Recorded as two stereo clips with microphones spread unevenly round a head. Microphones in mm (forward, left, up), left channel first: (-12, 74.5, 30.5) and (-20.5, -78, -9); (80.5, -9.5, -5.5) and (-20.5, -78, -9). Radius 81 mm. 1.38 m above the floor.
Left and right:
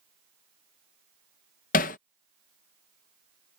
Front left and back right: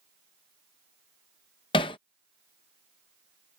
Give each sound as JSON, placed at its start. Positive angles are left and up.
{"t": 1.7, "sound": "hammering", "azimuth_deg": 85}